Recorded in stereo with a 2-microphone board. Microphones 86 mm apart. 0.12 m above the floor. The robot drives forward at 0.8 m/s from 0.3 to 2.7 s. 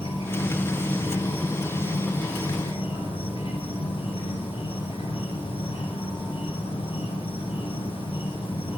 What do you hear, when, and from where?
0.0 s an insect: 75° left (ahead or behind), 8.5 m; by 8.8 s 90° left, 8.5 m